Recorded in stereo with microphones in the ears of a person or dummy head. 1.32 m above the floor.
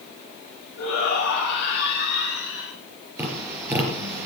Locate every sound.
0.8 s a shout: 90° left, 7 m; by 2.7 s 75° left (ahead or behind), 7 m
3.2 s tapping: 10° right (ahead or behind), 4.5 m